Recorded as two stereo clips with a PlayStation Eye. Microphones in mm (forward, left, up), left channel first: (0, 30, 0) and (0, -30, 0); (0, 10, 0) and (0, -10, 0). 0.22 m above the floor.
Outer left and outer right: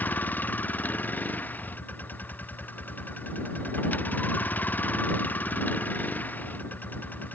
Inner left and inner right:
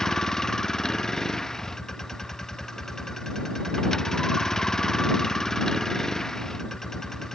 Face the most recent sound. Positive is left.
turn(degrees=30)  # may be behind; listen again after turning